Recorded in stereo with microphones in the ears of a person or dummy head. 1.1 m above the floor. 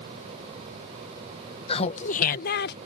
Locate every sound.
1.7 s laughter: 30° left (ahead or behind); by 2.8 s 55° left (ahead or behind)